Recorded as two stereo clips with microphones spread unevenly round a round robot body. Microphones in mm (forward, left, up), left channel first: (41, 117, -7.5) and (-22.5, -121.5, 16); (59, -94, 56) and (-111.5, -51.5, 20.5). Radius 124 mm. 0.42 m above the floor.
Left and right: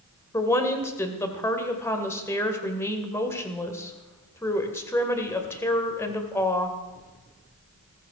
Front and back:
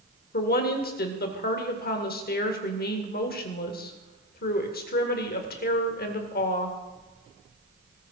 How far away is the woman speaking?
About 2 m.